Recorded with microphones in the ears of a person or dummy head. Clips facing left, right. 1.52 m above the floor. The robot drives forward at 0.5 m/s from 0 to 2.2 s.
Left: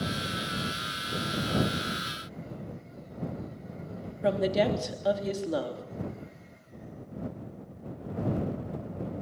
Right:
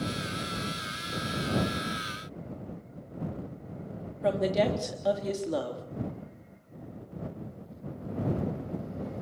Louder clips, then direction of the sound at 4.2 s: Even; 5° left (ahead or behind).